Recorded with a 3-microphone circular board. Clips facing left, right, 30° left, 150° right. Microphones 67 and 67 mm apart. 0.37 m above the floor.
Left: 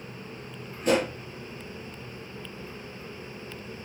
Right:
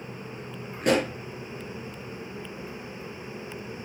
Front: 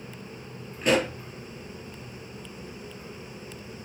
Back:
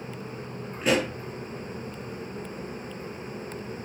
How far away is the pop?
About 5 m.